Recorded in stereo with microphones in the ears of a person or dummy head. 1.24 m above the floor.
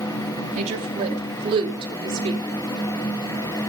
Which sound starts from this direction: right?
A woman speaking, at 0.6 s.